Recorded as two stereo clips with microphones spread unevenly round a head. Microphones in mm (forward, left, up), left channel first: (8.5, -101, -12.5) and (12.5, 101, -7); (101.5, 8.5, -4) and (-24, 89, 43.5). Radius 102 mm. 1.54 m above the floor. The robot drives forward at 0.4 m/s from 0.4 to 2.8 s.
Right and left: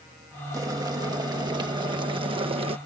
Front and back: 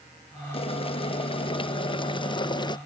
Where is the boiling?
15° left; by 2.8 s 25° left.